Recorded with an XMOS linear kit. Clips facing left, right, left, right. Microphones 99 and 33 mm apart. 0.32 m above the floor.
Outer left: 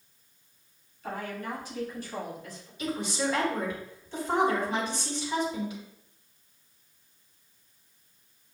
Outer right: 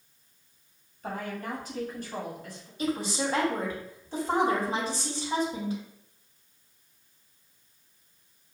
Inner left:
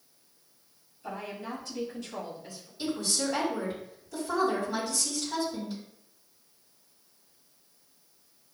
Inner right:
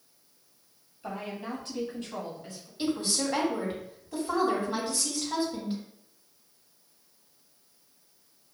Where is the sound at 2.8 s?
40° right (ahead or behind), 1.8 m.